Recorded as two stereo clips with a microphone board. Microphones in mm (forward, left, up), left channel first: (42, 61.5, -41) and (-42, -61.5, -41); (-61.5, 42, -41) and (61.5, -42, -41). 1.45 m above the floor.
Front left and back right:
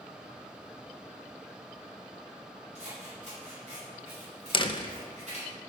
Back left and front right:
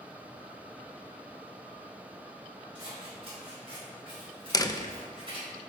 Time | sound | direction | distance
2.8 | scissors | 85° right | 4.5 m
4.5 | a door slam | 95° left | 0.7 m